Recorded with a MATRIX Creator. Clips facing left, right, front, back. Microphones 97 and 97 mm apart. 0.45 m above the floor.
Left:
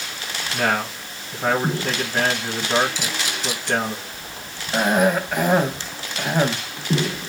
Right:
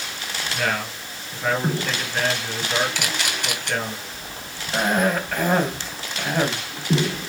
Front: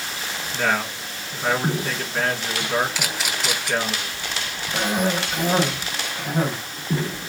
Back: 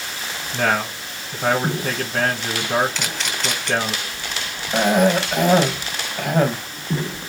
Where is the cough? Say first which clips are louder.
Left 3 dB, back 7 dB; 165° left, 3 m.